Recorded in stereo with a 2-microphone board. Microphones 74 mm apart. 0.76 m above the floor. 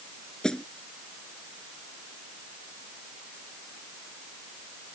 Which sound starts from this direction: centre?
A snare drum, at 0.4 s.